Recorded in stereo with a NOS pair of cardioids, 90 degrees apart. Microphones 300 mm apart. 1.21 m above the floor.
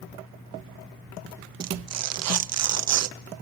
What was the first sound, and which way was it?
Tearing paper, 55° right.